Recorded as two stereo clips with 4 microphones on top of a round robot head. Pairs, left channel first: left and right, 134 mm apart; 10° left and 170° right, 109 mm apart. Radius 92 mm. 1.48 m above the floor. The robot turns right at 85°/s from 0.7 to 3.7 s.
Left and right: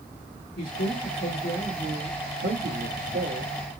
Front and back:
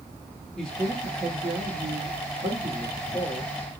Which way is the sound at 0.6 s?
95° left.